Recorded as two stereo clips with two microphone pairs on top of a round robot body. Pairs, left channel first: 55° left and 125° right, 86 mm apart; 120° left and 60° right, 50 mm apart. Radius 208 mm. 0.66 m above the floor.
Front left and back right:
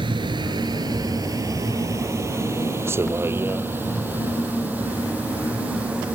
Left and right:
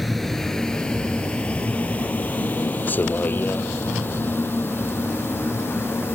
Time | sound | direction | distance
0.0 | a vehicle | 150° right | ?